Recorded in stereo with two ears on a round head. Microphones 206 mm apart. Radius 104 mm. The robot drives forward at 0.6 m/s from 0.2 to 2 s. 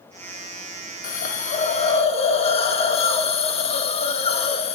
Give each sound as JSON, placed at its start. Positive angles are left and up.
{"t": 1.0, "sound": "a hiss", "side_deg": 35, "distance_m": 1.3}